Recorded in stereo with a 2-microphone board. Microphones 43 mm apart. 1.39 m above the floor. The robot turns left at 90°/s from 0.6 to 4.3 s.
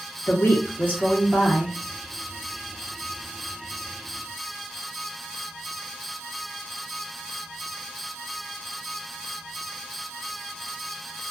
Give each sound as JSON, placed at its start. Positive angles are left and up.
{"t": 0.3, "sound": "a woman speaking", "azimuth_deg": 60, "distance_m": 0.9}